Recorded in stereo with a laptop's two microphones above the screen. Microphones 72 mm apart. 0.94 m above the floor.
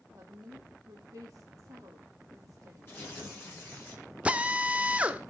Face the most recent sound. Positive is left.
turn(degrees=-20)  # may be behind; listen again after turning